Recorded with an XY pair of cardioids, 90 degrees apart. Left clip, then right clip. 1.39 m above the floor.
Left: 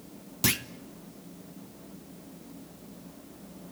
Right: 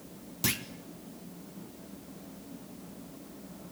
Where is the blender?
I don't hear a blender.